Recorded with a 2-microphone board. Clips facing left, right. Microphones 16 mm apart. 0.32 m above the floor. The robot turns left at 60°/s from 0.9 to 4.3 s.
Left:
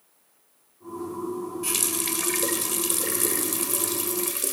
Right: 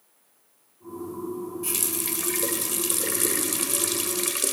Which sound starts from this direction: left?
A running tap, at 1.6 s.